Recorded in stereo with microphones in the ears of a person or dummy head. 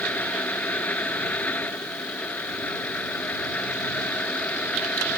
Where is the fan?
10° left (ahead or behind).